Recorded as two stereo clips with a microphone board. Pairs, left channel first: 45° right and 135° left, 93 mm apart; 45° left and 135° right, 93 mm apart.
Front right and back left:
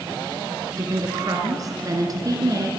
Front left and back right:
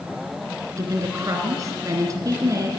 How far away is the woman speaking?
About 3 m.